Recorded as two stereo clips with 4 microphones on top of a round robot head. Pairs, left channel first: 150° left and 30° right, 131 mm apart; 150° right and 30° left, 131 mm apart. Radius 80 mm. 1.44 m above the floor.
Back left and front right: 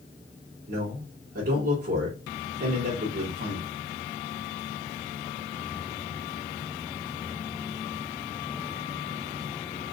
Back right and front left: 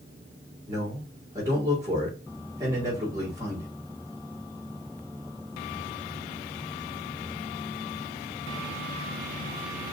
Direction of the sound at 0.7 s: 40° right.